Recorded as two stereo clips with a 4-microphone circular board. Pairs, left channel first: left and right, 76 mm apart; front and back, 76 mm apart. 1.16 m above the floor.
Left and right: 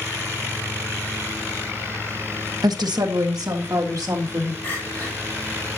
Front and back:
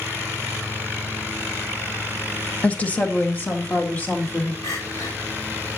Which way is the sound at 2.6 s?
70° right.